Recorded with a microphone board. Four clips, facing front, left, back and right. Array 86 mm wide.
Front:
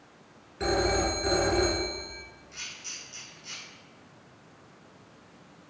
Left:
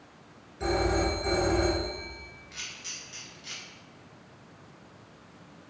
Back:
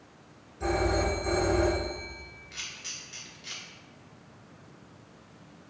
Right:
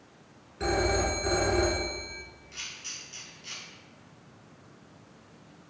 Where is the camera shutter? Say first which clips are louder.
Left 1 dB, back 1 dB; 150° left, 1.5 m.